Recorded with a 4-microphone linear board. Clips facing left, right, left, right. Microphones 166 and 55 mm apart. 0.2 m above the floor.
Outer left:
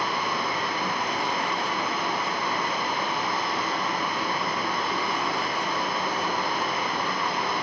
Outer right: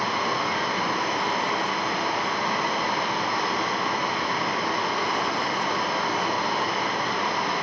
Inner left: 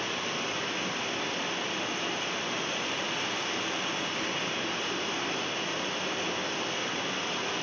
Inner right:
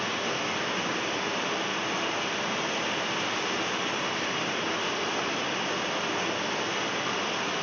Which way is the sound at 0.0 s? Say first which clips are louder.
Outer right 2 dB, inner right 3 dB; 85° right.